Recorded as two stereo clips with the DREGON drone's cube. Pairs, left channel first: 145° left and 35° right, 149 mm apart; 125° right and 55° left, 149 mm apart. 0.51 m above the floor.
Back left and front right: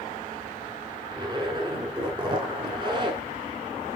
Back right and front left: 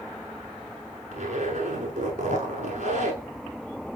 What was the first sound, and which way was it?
A zipper, 25° left.